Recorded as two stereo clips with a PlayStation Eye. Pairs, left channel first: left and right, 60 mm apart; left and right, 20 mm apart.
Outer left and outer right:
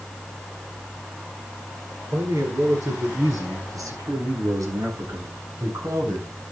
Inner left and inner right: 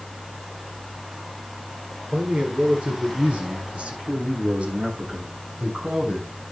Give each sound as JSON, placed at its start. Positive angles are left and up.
{"t": 2.1, "sound": "a man speaking", "side_deg": -80, "distance_m": 9.0}